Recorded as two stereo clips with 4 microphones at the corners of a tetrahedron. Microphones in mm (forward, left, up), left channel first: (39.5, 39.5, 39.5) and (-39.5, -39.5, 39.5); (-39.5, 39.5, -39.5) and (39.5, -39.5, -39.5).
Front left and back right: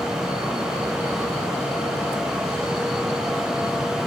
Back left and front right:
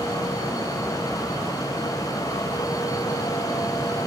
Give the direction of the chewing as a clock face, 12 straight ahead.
No chewing in this recording.